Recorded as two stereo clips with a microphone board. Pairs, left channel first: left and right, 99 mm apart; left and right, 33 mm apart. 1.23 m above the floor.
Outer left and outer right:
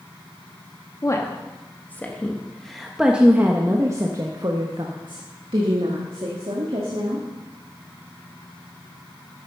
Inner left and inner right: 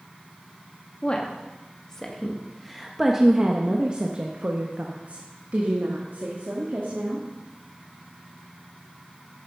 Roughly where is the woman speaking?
Left.